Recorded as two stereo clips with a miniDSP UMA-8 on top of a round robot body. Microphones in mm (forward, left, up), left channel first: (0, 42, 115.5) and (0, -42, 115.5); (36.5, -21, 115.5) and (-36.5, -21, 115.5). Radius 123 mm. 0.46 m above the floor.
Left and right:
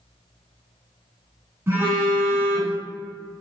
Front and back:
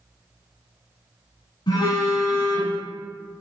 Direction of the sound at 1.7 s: 25° right.